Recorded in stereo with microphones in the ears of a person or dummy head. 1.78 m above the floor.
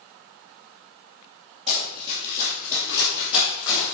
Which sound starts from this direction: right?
Running footsteps, at 1.7 s.